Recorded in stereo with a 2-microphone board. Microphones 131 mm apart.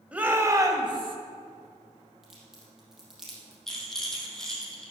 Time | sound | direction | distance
0.1 | a shout | 10° right (ahead or behind) | 1.5 m
2.2 | a crack | 5° right (ahead or behind) | 4 m
3.7 | a rattle | 5° left (ahead or behind) | 2.5 m